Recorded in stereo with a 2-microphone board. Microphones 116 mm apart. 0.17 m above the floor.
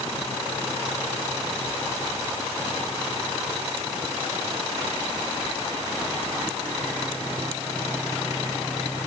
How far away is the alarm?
I don't hear an alarm.